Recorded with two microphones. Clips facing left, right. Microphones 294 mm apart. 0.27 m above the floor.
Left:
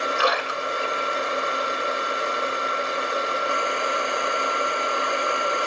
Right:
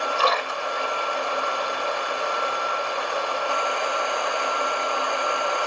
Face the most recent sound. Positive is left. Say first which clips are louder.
# even
turn(degrees=15)  # may be behind; listen again after turning